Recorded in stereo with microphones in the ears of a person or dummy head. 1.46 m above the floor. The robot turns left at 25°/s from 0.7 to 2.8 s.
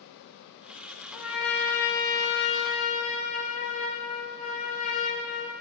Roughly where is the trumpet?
Behind.